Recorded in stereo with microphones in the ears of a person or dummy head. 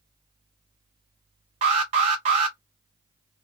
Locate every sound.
1.6 s an alarm: 35° right (ahead or behind), 0.7 m